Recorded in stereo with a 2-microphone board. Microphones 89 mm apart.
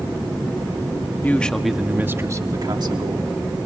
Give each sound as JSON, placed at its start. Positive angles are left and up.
{"t": 1.2, "sound": "a man speaking", "side_deg": 20, "distance_m": 1.2}